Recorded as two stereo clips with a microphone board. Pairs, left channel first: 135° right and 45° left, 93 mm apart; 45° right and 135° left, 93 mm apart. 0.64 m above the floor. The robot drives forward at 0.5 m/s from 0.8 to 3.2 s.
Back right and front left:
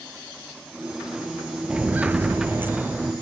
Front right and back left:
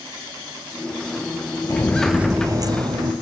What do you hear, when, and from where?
1.7 s footsteps: 25° right, 0.7 m; by 3.1 s 115° left, 1.4 m